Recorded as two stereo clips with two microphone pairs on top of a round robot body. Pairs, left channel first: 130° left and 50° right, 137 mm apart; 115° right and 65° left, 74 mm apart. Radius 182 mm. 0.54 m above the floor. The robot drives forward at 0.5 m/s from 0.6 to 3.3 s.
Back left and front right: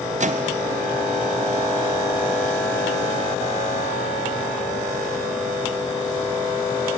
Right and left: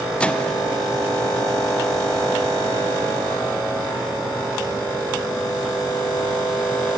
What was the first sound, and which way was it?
A microwave, 40° right.